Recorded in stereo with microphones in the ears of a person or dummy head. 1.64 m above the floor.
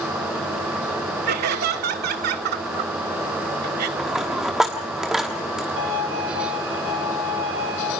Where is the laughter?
50° right (ahead or behind), 1.1 m.